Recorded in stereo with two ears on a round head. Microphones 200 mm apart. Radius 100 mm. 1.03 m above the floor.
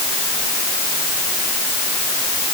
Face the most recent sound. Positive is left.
No sound to turn to.